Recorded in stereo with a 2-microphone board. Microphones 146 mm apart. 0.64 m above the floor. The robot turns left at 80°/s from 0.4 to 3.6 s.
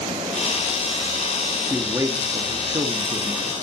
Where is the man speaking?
15° right, 1.4 m; by 3.5 s 165° right, 1.4 m.